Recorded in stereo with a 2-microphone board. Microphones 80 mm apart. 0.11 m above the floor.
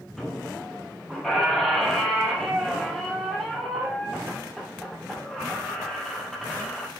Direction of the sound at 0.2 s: Centre (ahead or behind).